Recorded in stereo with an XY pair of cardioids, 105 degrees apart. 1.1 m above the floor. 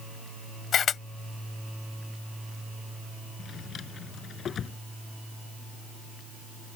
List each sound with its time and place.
0.7 s a camera shutter: 55° left
3.4 s a drawer: 50° left